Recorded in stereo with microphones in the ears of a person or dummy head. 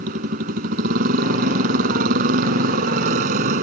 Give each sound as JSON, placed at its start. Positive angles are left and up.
{"t": 0.0, "sound": "a motorcycle", "side_deg": -45}